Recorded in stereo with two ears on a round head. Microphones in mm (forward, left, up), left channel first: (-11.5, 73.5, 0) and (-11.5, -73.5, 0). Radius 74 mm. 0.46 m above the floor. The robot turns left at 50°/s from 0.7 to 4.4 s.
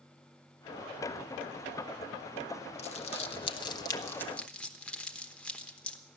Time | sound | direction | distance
2.8 | crumpling | 40° left (ahead or behind) | 0.9 m